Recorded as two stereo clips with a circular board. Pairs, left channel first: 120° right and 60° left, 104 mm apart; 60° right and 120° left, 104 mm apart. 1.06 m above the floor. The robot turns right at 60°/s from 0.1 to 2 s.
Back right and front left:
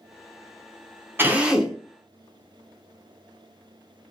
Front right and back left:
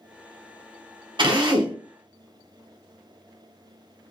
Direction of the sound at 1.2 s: 120° left.